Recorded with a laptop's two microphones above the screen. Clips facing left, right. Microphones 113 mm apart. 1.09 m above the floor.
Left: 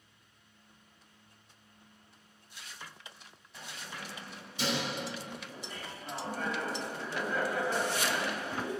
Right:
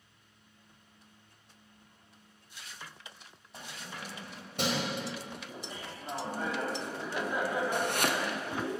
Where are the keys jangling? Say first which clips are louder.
Right 1 dB; 40° right (ahead or behind), 4.5 m; by 4.9 s 70° right (ahead or behind), 3.5 m.